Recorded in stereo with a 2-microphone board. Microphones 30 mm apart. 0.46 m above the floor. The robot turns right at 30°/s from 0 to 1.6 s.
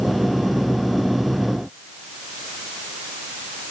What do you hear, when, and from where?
Only background noise.